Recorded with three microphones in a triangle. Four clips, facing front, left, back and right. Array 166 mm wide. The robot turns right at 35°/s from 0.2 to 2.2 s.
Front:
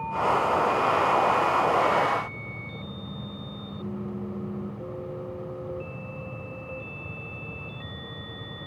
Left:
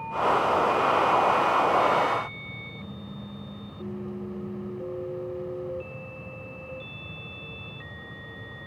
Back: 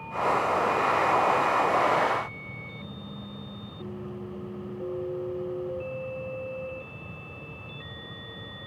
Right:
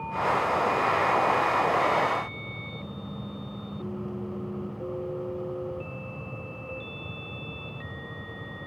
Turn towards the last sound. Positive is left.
No sound to turn to.